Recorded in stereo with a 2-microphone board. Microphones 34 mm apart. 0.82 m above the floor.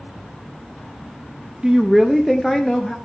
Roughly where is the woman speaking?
Right.